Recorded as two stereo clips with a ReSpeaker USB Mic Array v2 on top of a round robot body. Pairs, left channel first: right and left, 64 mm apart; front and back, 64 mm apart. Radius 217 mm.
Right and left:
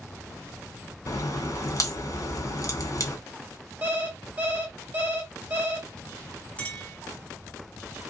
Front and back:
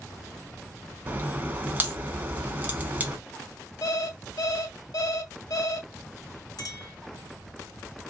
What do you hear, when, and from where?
1.1 s a crack: 120° right, 2 m
3.8 s an alarm clock: 25° left, 1.5 m
6.6 s a clink: 20° right, 1.5 m